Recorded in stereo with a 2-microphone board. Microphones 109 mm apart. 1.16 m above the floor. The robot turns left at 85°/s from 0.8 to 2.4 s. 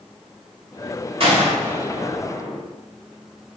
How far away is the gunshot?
About 1.8 m.